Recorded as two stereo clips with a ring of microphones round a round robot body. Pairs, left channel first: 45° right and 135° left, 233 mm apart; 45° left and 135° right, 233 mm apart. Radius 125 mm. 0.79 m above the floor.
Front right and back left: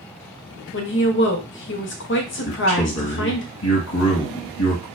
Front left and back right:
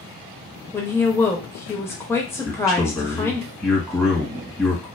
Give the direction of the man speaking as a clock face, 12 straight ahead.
2 o'clock.